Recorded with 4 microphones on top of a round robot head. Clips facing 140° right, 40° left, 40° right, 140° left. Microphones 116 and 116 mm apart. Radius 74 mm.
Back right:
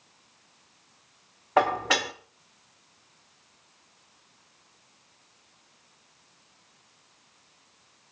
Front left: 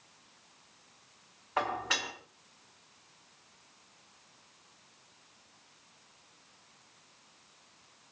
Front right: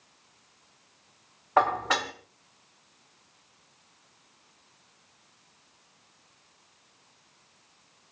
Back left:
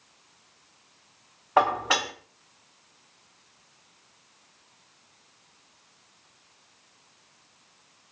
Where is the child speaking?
I don't hear a child speaking.